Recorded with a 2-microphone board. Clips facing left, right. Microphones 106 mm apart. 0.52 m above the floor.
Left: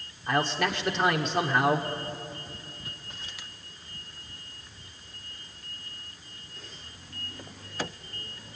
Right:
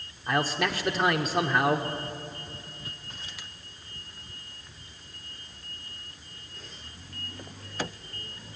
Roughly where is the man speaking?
Centre.